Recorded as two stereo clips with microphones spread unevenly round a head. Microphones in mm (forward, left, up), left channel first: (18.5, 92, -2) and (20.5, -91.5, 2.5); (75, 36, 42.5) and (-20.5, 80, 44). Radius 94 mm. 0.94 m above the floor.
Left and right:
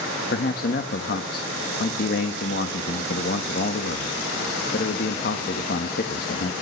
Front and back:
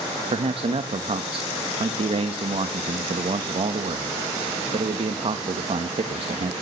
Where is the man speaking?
130° left, 1.2 m.